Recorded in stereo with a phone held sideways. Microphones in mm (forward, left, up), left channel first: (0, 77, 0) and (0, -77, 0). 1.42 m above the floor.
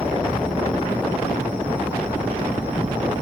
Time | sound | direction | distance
0.0 | an insect | 10° right (ahead or behind) | 2.5 m